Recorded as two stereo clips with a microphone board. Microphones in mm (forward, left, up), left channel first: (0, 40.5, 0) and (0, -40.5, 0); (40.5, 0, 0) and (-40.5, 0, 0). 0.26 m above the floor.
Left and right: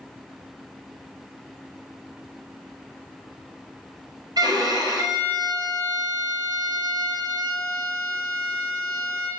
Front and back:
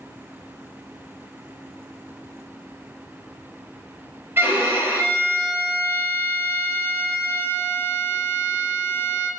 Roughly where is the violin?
Behind right.